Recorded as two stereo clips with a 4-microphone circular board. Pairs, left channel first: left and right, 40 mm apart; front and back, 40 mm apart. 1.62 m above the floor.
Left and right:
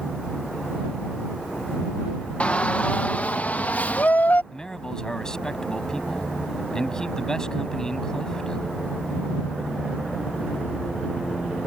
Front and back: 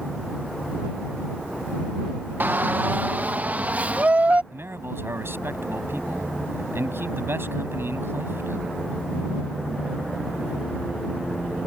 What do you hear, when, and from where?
2.4 s a shout: 145° left; by 4.4 s 130° left
4.5 s a man speaking: 160° left